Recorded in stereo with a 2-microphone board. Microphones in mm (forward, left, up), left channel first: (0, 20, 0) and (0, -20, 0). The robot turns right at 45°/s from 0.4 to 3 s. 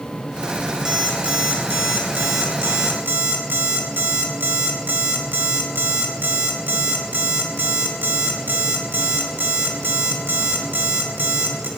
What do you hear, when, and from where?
0.8 s an alarm clock: 160° right, 3.5 m; by 11.7 s 65° right, 3.5 m